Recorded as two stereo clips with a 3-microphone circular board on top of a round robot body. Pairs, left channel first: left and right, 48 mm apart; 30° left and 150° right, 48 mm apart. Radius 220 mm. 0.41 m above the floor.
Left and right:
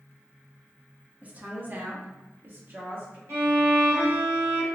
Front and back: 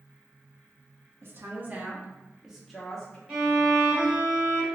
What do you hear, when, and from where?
1.2 s a woman speaking: 140° right, 1.2 m; by 3.2 s 50° right, 1.4 m
3.3 s a violin: 80° right, 1.8 m